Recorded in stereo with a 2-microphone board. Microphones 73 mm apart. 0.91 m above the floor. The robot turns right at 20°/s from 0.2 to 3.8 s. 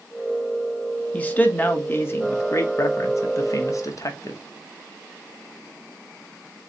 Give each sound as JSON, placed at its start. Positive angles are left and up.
{"t": 1.1, "sound": "a man speaking", "side_deg": 20, "distance_m": 0.9}